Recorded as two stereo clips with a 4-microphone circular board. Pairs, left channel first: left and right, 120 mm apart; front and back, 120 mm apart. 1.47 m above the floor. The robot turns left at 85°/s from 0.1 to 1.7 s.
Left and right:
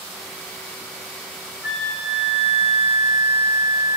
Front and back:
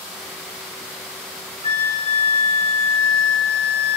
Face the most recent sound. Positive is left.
turn(degrees=-25)